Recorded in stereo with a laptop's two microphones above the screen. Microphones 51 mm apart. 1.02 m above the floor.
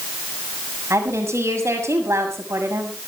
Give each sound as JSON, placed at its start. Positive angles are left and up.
{"t": 0.9, "sound": "a woman speaking", "side_deg": -65, "distance_m": 6.5}